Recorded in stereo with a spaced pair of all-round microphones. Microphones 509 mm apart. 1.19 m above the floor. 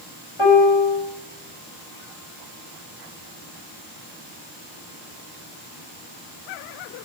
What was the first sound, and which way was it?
A piano, 70° left (ahead or behind).